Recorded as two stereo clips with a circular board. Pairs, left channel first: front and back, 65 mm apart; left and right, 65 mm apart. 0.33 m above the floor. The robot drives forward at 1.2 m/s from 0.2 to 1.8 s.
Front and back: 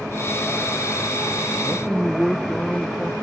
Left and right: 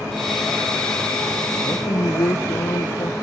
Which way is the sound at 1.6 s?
75° left.